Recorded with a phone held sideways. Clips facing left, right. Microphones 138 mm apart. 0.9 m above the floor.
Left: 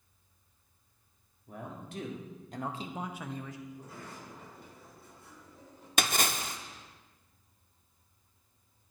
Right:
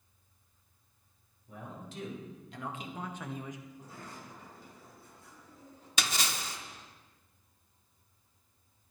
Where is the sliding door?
75° left (ahead or behind), 4 m.